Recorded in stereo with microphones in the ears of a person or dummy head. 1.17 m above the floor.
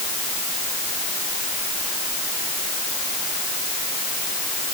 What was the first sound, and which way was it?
Only background noise.